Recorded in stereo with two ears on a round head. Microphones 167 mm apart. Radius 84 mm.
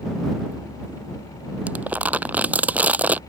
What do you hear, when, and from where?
1.7 s crumpling: 10° right (ahead or behind)